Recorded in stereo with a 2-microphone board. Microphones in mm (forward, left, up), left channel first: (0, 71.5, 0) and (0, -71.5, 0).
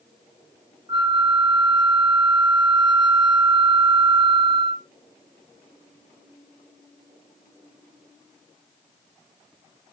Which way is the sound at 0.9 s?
30° right (ahead or behind).